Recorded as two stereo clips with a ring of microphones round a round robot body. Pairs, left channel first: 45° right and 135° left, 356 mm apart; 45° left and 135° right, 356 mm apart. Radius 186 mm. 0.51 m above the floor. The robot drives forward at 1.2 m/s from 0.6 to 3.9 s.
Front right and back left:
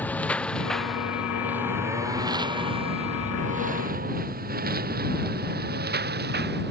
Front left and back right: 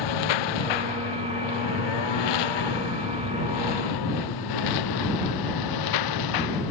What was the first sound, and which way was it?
A lawn mower, 40° left.